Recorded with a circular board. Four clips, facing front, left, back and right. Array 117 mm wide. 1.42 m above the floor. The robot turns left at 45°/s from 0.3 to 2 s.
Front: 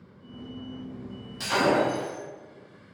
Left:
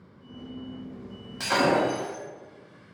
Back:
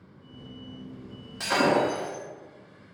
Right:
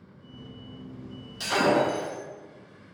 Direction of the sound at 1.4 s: 120° left.